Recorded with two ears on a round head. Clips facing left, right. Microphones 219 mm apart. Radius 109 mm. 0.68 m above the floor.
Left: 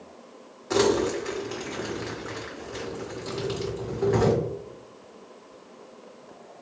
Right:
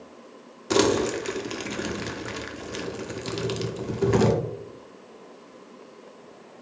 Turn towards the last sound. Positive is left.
turn(degrees=-50)  # may be behind; listen again after turning